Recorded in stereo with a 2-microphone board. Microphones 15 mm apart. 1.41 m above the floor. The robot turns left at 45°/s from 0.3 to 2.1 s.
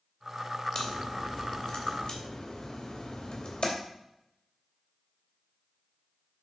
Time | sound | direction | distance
0.8 | a crack | 30° left (ahead or behind) | 2.5 m